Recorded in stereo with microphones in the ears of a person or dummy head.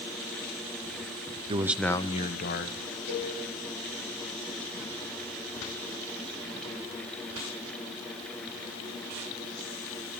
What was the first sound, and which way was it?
A man speaking, 30° right (ahead or behind).